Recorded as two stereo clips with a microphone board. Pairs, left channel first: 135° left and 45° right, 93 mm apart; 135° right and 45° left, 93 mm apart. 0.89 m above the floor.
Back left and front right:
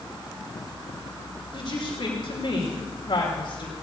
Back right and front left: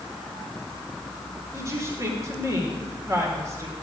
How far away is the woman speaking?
About 2.5 m.